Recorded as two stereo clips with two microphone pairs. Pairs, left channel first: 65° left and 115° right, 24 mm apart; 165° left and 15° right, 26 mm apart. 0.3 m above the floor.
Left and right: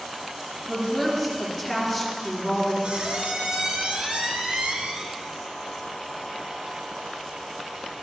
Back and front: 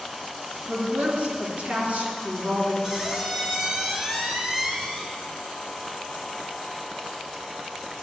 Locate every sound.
0.7 s a woman speaking: 25° right, 3.5 m
2.8 s a squeak: 85° right, 1.8 m